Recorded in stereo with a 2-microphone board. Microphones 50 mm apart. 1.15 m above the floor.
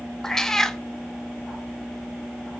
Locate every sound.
0.2 s a cat meowing: 10° left (ahead or behind), 0.7 m